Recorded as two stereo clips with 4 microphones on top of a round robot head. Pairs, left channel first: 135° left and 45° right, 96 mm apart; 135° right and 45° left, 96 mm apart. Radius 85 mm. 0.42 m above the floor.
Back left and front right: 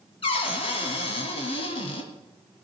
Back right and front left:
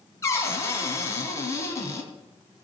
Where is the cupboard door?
165° left, 2 m.